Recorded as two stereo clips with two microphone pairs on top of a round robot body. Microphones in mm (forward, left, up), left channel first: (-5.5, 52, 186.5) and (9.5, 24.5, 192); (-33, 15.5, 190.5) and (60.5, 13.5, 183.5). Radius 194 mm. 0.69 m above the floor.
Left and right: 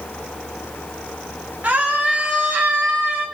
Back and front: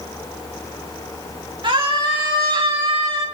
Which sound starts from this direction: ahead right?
A scream, at 1.6 s.